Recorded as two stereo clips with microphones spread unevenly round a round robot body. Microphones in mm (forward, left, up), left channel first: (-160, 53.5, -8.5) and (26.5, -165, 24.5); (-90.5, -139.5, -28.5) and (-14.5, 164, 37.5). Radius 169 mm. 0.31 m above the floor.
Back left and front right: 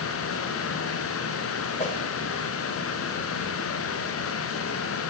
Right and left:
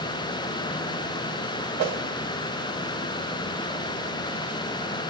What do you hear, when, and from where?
1.8 s a whoosh: 75° left, 1.6 m